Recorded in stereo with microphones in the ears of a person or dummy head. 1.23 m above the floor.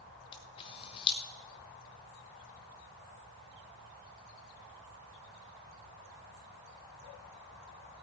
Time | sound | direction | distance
0.3 | a camera shutter | 30° left (ahead or behind) | 1.3 m